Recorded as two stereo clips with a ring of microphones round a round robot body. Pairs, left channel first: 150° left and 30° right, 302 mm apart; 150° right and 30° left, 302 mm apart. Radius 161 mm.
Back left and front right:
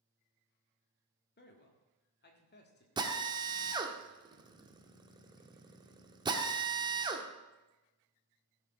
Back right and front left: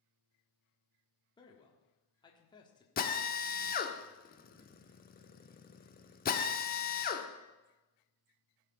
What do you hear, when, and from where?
1.4 s a man speaking: 145° left, 1.5 m
3.0 s a drill: 100° right, 1.1 m